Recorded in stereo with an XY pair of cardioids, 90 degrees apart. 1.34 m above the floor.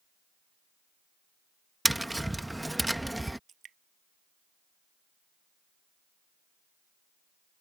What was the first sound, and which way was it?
Tapping, 5° right.